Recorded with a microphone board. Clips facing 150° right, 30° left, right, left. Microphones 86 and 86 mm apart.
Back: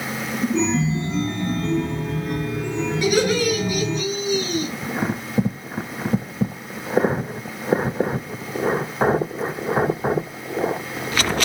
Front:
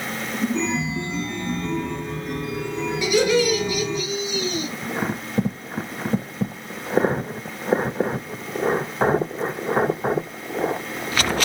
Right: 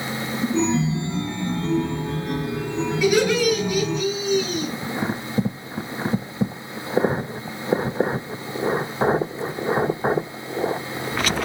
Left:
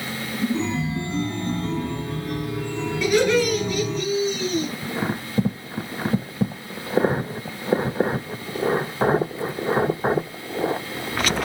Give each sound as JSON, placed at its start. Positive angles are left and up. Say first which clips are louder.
{"t": 0.5, "sound": "a chime", "louder": "back 4 dB, right 4 dB", "azimuth_deg": -105, "distance_m": 2.0}
{"t": 3.0, "sound": "laughter", "louder": "front 1 dB, even", "azimuth_deg": -170, "distance_m": 2.5}